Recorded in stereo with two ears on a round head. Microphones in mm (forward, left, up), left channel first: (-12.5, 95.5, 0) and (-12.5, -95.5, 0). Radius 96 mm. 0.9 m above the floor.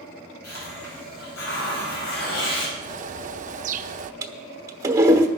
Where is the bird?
35° right (ahead or behind), 0.6 m.